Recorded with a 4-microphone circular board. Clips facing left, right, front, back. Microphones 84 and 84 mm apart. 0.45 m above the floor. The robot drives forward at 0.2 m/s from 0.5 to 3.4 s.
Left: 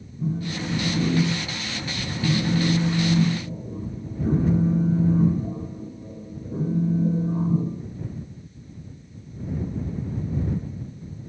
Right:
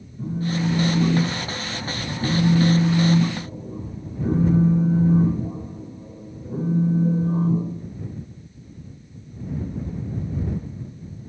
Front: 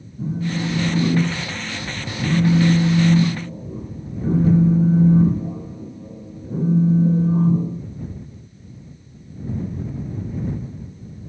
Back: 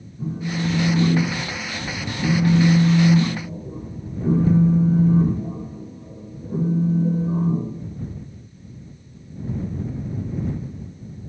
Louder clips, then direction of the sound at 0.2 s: Right 3 dB, front 2 dB; 80° right.